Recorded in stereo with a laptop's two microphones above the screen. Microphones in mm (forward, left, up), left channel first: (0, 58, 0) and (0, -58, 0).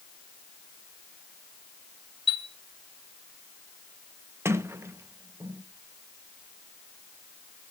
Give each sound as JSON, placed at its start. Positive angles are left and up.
{"t": 2.3, "sound": "a chime", "side_deg": 45, "distance_m": 2.0}
{"t": 4.5, "sound": "a sliding door", "side_deg": -20, "distance_m": 0.7}